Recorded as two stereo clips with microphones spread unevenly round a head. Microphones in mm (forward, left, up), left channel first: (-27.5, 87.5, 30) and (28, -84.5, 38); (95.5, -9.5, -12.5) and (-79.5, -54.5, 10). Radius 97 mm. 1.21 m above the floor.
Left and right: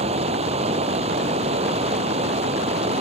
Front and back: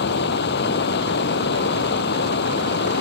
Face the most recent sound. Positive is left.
turn(degrees=-15)